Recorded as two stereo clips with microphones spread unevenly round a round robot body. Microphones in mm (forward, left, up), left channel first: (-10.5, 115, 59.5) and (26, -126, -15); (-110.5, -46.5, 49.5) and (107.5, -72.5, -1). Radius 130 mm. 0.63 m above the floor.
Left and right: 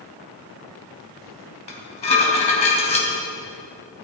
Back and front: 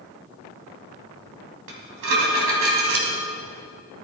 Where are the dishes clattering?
30° left, 3 m.